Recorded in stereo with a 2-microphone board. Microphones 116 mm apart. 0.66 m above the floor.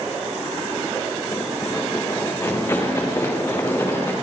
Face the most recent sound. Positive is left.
turn(degrees=25)  # may be behind; listen again after turning